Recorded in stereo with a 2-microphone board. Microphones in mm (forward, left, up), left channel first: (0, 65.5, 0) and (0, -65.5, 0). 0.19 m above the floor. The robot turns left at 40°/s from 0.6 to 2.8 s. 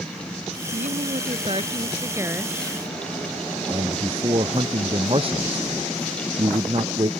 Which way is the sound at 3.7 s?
45° right (ahead or behind).